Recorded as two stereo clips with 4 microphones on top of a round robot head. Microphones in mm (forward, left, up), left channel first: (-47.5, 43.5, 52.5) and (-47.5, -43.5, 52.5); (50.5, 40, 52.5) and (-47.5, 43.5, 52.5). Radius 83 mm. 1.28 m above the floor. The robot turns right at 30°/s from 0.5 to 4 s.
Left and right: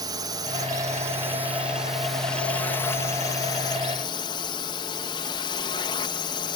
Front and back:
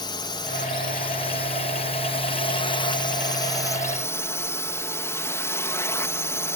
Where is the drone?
45° right; by 6.6 s 60° left.